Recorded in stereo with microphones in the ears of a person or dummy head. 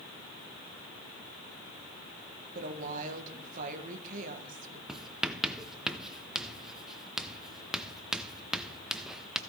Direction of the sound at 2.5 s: 40° right (ahead or behind).